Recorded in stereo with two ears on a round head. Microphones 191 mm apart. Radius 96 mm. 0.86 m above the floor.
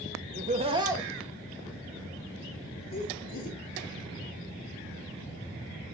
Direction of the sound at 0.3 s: 45° right (ahead or behind).